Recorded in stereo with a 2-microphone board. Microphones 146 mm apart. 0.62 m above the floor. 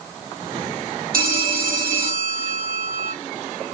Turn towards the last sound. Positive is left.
turn(degrees=-80)